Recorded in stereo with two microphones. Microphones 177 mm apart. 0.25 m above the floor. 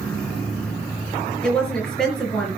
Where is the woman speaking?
5° left (ahead or behind), 4.5 m.